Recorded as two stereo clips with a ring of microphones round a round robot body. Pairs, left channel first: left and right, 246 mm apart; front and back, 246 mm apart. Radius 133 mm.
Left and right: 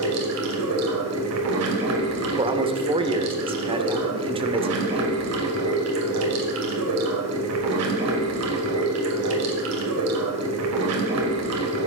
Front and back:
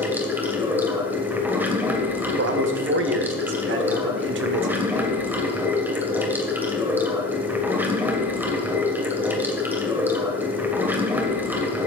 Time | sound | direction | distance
0.0 | running water | 100° right | 2.5 m
2.4 | a man speaking | 155° right | 1.4 m